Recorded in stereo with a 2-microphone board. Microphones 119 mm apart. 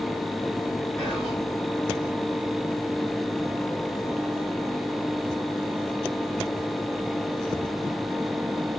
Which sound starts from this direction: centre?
Whispering, at 1.0 s.